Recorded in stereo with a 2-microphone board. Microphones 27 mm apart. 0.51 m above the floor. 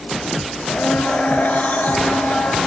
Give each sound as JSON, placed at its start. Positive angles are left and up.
{"t": 0.7, "sound": "a blender", "side_deg": 70, "distance_m": 5.0}